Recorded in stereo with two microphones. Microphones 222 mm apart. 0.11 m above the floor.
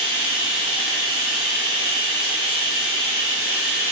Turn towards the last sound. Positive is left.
turn(degrees=-65)  # may be behind; listen again after turning